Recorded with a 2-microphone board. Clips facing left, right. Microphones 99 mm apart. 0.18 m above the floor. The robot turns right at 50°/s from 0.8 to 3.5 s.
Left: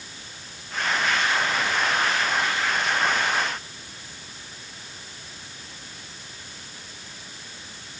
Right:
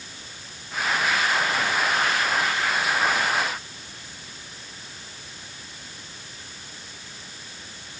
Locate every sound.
Only background noise.